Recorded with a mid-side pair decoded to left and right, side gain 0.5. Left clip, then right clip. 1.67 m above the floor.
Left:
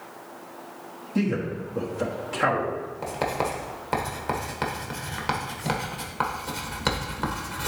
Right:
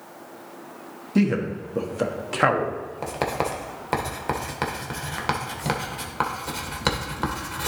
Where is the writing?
20° right, 1.4 m.